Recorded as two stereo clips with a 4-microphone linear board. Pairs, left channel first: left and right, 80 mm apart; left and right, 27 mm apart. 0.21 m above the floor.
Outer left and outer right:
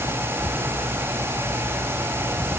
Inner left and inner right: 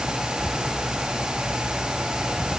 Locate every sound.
Only background noise.